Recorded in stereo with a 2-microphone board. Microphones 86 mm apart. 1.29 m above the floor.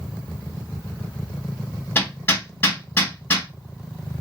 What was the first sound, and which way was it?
Hammering, 25° left (ahead or behind).